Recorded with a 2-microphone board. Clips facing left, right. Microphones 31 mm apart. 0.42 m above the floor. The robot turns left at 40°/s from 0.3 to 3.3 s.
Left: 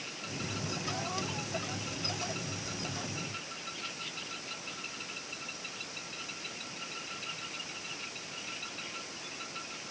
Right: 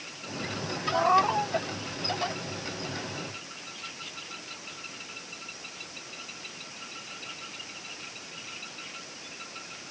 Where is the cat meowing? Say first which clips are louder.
Right 14 dB; 85° right; by 1.5 s 60° right (ahead or behind).